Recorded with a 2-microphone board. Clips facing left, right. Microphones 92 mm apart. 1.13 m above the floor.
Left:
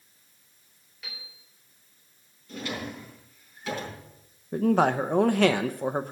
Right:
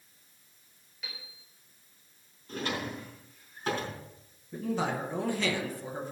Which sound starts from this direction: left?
A man speaking, at 4.5 s.